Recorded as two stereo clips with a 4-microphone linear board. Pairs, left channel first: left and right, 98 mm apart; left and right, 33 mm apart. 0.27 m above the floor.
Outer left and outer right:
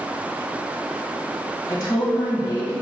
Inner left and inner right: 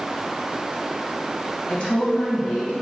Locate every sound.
1.7 s a woman speaking: 40° left (ahead or behind), 1.2 m